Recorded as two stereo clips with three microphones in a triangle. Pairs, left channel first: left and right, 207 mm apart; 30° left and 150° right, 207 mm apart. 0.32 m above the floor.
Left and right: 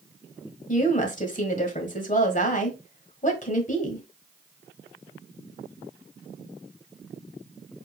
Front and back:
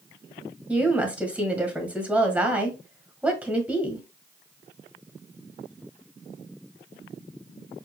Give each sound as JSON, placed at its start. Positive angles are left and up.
{"t": 0.7, "sound": "a woman speaking", "azimuth_deg": 130, "distance_m": 1.3}